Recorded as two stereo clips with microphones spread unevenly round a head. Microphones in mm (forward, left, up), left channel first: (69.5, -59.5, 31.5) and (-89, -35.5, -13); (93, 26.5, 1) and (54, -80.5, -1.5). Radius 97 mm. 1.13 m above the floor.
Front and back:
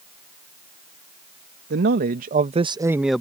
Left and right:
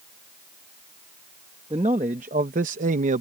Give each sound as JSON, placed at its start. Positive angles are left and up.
{"t": 1.7, "sound": "a man speaking", "azimuth_deg": -175}